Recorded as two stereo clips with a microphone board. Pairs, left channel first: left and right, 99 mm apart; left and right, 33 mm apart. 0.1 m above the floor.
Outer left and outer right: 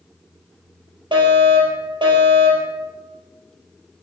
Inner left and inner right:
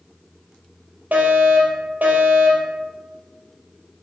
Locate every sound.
1.1 s a fire alarm: 55° right (ahead or behind), 4 m